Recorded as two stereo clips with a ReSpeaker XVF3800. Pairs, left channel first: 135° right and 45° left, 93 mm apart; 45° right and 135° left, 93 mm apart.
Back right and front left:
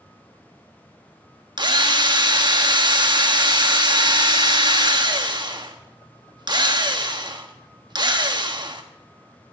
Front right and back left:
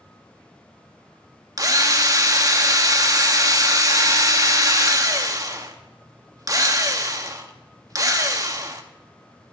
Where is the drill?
85° left, 1.2 m.